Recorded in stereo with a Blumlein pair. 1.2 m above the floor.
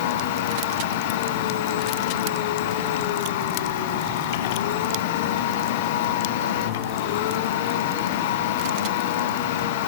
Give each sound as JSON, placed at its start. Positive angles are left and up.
{"t": 0.0, "sound": "a machine running", "azimuth_deg": 50, "distance_m": 1.1}